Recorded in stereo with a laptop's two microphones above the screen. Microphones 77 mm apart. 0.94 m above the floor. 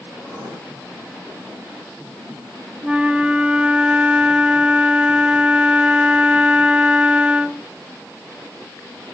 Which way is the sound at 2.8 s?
15° right (ahead or behind).